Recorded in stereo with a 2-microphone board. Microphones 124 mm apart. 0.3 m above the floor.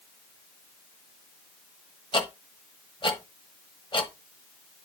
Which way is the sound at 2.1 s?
45° left (ahead or behind).